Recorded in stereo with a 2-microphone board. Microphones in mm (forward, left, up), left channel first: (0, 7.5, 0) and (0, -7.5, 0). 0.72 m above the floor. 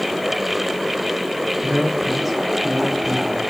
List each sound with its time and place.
1.6 s a man speaking: centre (ahead or behind), 6 m